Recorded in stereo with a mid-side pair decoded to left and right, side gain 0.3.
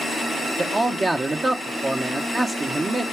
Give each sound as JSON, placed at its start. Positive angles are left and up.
{"t": 0.6, "sound": "a man speaking", "azimuth_deg": -40, "distance_m": 0.8}